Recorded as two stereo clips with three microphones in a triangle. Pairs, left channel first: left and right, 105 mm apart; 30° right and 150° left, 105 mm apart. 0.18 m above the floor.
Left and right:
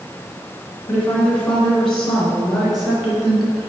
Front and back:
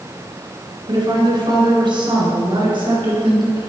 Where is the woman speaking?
160° left, 2 m; by 3.7 s 175° right, 3.5 m.